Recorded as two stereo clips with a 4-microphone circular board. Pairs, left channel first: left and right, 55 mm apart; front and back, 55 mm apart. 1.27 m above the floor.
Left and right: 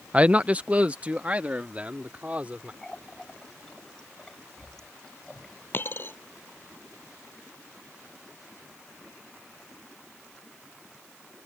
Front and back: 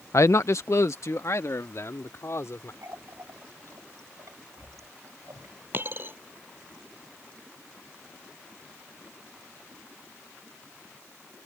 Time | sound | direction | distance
0.1 | a man speaking | 25° right | ?
2.8 | a running tap | 170° left | ?
5.7 | a dropped coin | 135° left | ?